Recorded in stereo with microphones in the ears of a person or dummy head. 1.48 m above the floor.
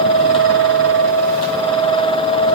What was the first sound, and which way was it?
Only background noise.